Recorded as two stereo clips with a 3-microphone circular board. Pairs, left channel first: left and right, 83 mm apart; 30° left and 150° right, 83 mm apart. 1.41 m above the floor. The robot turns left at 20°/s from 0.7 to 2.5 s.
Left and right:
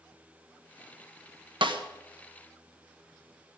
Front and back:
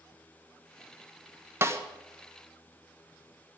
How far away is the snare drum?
About 1.2 m.